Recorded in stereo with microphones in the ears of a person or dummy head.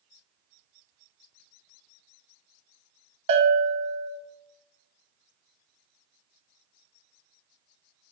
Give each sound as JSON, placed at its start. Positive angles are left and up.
{"t": 3.3, "sound": "a bell", "side_deg": -30, "distance_m": 1.3}